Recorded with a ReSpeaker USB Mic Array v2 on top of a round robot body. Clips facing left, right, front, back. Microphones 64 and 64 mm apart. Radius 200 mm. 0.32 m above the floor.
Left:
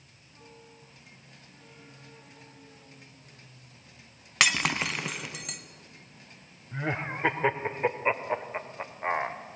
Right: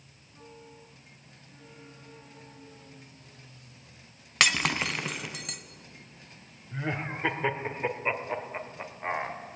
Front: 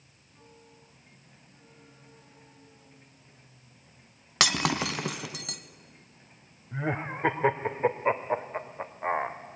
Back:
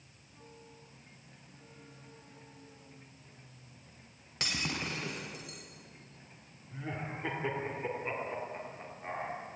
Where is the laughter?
20° left, 1.9 m.